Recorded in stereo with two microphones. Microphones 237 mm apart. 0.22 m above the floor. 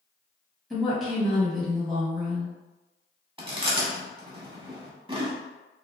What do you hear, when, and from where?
0.7 s a woman speaking: centre (ahead or behind), 1.2 m
3.4 s chewing: 25° right (ahead or behind), 0.7 m